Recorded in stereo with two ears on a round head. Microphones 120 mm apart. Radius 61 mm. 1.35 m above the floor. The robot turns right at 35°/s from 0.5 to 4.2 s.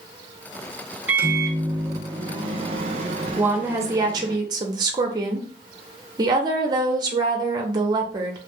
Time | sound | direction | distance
1.1 | a microwave | 165° right | 0.5 m
3.4 | a woman speaking | 10° right (ahead or behind) | 0.6 m